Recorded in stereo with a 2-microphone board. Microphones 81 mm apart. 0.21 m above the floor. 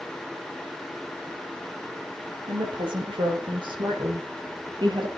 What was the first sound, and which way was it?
A woman speaking, 80° right.